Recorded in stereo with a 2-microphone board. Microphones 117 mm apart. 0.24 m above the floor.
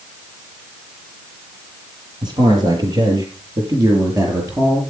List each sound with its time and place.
2.2 s a man speaking: 40° right (ahead or behind), 7.5 m; by 4.8 s 25° right (ahead or behind), 6 m